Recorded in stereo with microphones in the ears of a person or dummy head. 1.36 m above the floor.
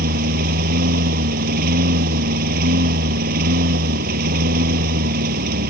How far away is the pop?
No pop in this recording.